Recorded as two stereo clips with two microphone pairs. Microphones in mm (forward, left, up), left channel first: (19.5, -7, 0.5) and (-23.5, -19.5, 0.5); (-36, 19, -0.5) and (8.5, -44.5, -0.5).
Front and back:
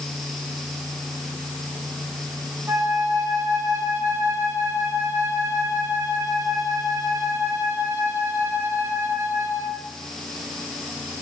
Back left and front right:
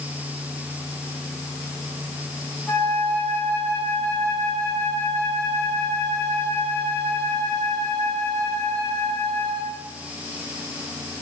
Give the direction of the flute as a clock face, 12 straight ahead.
6 o'clock.